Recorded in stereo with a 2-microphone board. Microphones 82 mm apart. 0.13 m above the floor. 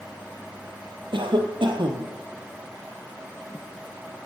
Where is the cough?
70° right (ahead or behind), 3.5 m.